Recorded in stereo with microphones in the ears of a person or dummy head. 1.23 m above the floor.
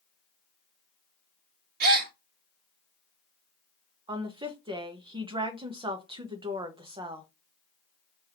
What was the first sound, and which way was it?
A gasp, 50° right (ahead or behind).